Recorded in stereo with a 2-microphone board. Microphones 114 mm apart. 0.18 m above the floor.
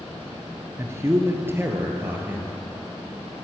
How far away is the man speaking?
About 3 m.